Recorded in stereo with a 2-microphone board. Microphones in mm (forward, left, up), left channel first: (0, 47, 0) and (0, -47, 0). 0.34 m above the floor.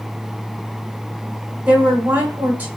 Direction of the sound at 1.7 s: 15° right (ahead or behind).